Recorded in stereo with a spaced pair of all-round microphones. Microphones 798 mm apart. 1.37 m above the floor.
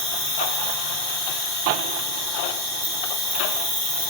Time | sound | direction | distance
0.0 | an insect | 35° left (ahead or behind) | 5.5 m